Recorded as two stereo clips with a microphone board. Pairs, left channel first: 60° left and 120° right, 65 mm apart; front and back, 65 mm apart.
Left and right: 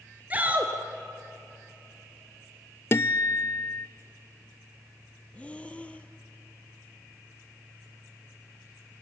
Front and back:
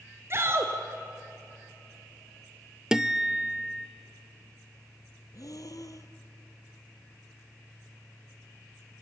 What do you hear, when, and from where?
0.3 s a shout: 175° right, 1.5 m
2.9 s a guitar: 100° left, 0.6 m
5.3 s breathing: 10° right, 1.2 m